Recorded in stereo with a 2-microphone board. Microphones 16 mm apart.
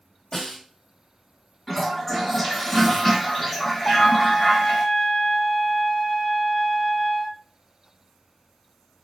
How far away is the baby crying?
No baby crying in this recording.